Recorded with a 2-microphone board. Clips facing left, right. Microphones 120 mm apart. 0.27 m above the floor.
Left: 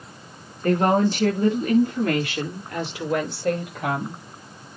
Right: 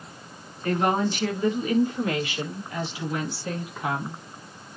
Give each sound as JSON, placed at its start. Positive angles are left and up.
{"t": 0.6, "sound": "a woman speaking", "side_deg": 45, "distance_m": 5.0}